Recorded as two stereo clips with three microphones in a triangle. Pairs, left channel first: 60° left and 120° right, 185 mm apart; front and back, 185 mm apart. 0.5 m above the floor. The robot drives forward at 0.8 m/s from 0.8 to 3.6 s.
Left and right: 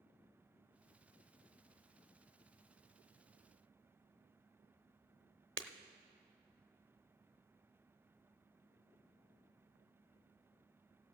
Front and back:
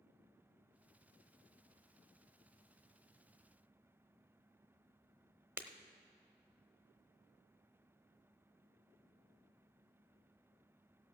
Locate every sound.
5.6 s breaking glass: 100° right, 0.6 m